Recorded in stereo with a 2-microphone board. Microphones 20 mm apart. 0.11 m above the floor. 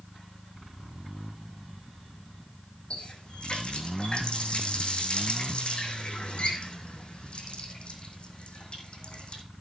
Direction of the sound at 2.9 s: 70° left (ahead or behind).